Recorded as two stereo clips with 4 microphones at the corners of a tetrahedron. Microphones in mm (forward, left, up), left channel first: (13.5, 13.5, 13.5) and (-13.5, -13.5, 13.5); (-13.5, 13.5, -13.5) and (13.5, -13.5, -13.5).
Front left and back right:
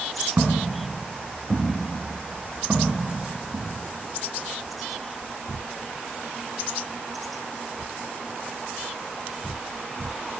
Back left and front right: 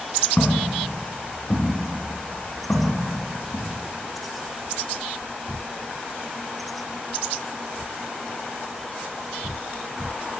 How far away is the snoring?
No snoring in this recording.